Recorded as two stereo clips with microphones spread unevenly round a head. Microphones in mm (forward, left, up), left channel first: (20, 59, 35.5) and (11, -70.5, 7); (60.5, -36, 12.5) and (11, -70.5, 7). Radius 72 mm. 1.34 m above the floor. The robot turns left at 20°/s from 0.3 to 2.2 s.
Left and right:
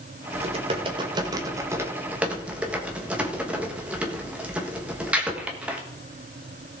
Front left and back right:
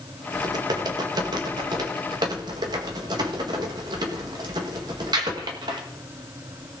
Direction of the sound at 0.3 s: 140° right.